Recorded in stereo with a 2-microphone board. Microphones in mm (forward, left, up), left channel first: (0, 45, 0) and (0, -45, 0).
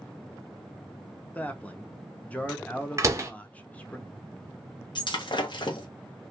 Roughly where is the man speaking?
Centre.